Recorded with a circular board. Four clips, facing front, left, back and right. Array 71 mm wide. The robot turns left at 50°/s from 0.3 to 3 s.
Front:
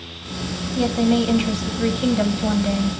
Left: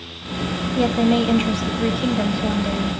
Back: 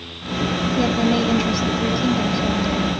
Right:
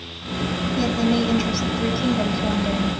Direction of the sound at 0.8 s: 95° left.